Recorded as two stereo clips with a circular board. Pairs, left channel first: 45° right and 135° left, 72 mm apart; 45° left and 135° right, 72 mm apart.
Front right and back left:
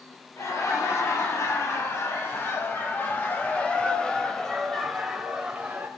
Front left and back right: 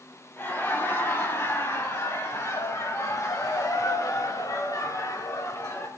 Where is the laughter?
10° right, 3 m; by 5.9 s 70° left, 1.6 m.